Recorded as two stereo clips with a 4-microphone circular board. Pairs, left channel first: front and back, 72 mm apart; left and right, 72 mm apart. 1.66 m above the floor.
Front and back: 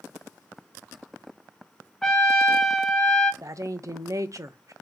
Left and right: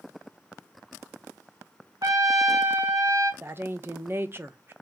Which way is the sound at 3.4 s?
145° right.